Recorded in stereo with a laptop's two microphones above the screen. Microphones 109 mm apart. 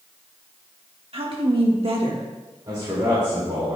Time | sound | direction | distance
1.1 | a woman speaking | 55° right (ahead or behind) | 1.3 m
2.7 | a man speaking | 45° right (ahead or behind) | 2 m